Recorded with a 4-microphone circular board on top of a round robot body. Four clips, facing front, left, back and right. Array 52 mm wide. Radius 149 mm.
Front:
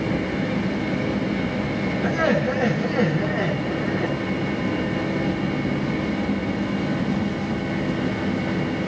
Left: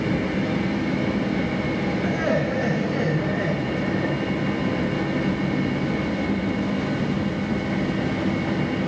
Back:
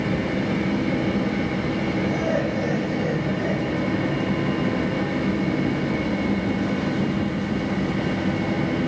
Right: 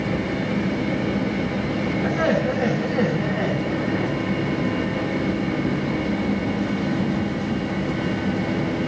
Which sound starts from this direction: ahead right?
Laughter, at 2.0 s.